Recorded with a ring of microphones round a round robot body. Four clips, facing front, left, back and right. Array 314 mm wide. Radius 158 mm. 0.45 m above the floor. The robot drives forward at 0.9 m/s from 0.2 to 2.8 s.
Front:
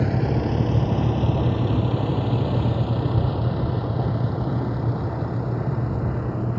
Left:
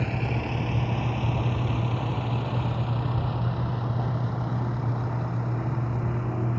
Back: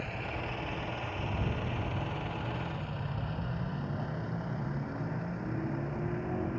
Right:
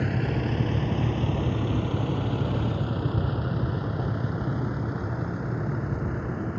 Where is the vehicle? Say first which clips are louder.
Right 2 dB, front 15 dB; 20° right.